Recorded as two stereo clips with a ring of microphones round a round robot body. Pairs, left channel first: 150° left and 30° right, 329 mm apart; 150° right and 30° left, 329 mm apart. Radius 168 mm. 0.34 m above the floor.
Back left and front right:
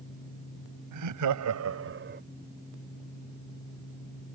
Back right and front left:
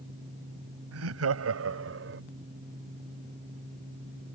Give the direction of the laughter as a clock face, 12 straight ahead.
12 o'clock.